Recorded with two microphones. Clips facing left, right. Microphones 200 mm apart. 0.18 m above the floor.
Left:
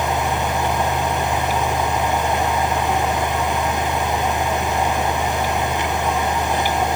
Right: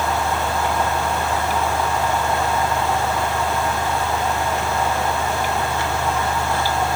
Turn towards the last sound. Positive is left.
No sound to turn to.